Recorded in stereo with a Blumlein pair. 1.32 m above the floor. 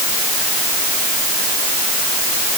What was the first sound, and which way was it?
Only background noise.